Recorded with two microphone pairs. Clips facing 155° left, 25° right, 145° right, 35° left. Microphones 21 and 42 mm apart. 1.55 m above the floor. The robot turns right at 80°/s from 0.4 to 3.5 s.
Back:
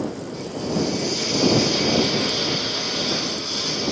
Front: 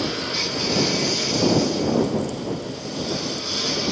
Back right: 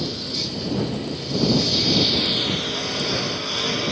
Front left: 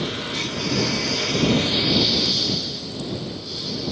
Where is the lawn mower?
10° right; by 3.9 s 115° right.